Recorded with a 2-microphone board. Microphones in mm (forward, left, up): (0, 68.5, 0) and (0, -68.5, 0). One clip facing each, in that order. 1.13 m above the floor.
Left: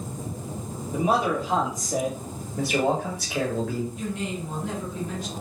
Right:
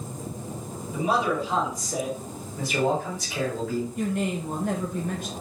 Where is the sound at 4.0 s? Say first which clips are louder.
Right 4 dB; 50° right (ahead or behind), 0.7 m.